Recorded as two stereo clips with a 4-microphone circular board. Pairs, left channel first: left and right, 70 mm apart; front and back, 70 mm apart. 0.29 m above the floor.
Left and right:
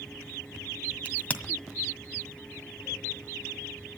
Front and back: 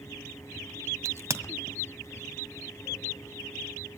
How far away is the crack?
About 1.5 m.